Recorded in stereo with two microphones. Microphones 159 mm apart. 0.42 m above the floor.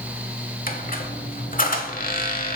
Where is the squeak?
60° left (ahead or behind), 1.0 m.